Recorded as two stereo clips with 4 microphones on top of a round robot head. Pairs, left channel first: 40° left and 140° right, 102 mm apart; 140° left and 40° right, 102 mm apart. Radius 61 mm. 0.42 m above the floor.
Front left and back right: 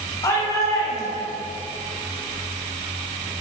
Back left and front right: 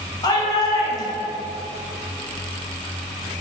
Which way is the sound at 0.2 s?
95° left.